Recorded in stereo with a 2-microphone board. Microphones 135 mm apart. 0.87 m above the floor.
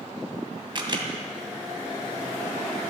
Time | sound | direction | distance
0.8 | a camera shutter | 35° right (ahead or behind) | 2 m